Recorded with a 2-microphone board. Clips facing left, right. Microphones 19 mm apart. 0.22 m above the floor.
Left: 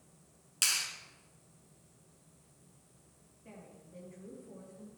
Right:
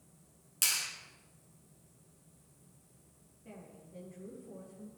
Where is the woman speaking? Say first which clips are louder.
Right 1 dB; 10° left (ahead or behind), 5 m.